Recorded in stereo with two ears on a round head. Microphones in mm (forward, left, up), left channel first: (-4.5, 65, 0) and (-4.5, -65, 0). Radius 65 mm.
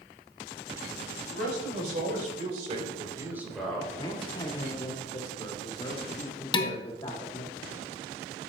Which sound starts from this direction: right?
A man speaking, at 1.3 s.